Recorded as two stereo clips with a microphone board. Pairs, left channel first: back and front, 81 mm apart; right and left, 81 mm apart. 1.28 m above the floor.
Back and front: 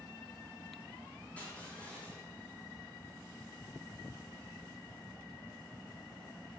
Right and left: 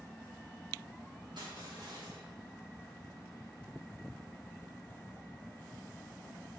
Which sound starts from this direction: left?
Crushing, at 1.4 s.